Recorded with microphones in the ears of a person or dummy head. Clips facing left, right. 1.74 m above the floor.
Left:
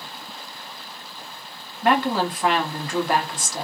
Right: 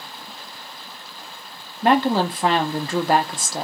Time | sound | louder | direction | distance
1.8 | a woman speaking | right 3 dB | 25° right (ahead or behind) | 0.6 m